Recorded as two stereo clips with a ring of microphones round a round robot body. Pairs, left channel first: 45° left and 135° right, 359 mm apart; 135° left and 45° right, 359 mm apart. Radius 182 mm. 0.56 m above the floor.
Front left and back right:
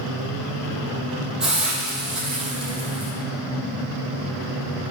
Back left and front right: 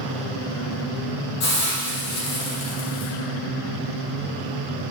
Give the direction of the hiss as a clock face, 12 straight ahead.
7 o'clock.